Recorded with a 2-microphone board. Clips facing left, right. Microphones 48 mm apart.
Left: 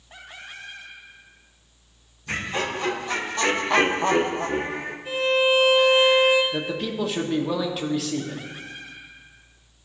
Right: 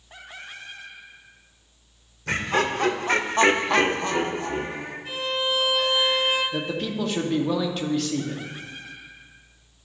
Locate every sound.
2.3 s laughter: 65° right (ahead or behind), 1.6 m; by 5.0 s 60° left (ahead or behind), 1.3 m
5.0 s a violin: 10° left (ahead or behind), 2.5 m
6.5 s a man speaking: 5° left (ahead or behind), 0.9 m